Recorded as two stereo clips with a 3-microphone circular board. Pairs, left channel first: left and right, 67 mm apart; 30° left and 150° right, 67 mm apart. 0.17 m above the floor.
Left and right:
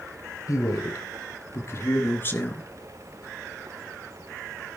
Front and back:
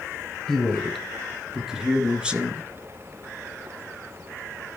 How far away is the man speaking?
About 3 m.